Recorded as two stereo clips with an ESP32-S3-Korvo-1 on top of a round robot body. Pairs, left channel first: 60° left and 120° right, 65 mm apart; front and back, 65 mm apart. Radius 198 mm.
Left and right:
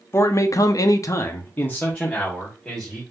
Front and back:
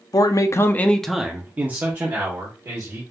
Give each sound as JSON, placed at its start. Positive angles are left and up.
{"t": 0.1, "sound": "a man speaking", "azimuth_deg": 15, "distance_m": 0.7}